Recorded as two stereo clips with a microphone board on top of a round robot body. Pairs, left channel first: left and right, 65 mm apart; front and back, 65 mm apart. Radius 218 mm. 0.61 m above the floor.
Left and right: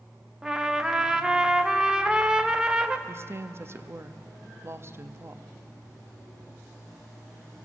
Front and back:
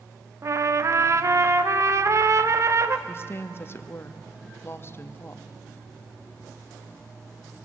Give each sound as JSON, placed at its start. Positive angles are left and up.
{"t": 0.4, "sound": "a trumpet", "azimuth_deg": -165, "distance_m": 1.4}
{"t": 3.1, "sound": "a woman speaking", "azimuth_deg": -45, "distance_m": 1.5}